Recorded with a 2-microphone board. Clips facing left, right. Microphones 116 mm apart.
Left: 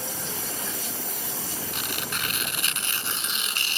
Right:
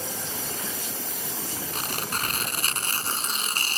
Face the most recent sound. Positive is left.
turn(degrees=-40)  # may be behind; listen again after turning